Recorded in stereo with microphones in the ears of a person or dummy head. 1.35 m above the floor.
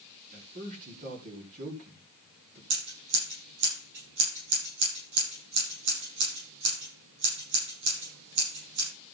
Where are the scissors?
70° right (ahead or behind), 7 m.